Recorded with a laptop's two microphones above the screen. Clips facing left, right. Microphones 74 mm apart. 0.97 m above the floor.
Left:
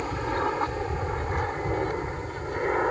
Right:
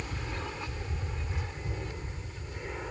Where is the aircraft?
55° left (ahead or behind); by 2.9 s 60° left (ahead or behind).